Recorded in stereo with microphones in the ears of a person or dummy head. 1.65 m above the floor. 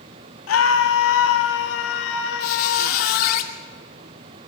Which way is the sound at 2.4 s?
45° left (ahead or behind).